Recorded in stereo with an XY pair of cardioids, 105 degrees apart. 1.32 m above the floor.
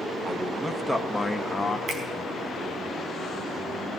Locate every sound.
0.2 s a man speaking: 35° right, 1.4 m; by 1.8 s 15° left, 1.6 m
1.9 s a finger snap: 55° right, 4.5 m